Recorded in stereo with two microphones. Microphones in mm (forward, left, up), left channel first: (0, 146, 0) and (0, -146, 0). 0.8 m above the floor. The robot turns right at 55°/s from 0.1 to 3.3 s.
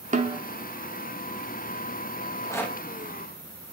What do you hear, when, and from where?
0.1 s a snare drum: 25° right (ahead or behind), 0.9 m; by 0.4 s 10° right (ahead or behind), 0.9 m
2.2 s a rattle: 25° left (ahead or behind), 1.3 m; by 2.8 s centre (ahead or behind), 1.3 m